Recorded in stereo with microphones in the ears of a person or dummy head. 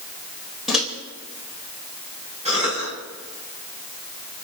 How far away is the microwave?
About 3.5 m.